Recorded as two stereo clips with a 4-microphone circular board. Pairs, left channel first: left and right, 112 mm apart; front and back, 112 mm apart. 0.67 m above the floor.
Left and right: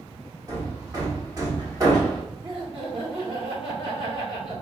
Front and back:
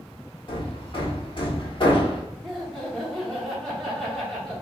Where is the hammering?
35° right, 1.3 m.